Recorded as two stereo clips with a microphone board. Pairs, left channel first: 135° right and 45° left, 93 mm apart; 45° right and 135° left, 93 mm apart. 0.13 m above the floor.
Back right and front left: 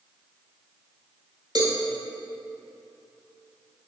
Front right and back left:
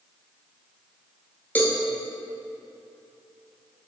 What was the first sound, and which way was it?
A cowbell, 20° left.